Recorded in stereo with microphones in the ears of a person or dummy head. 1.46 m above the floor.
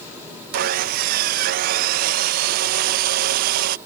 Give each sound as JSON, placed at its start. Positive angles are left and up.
{"t": 0.5, "sound": "sawing", "side_deg": -45}